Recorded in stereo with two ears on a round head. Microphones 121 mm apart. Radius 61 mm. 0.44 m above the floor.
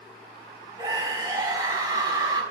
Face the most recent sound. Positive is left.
turn(degrees=-30)  # may be behind; listen again after turning